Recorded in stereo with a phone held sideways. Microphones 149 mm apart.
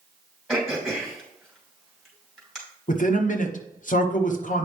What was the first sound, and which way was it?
Throat clearing, 5° left (ahead or behind).